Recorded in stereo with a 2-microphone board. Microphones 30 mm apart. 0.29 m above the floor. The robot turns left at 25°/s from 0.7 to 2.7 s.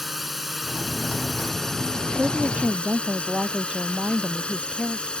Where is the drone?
10° right (ahead or behind); by 5.2 s 35° left (ahead or behind).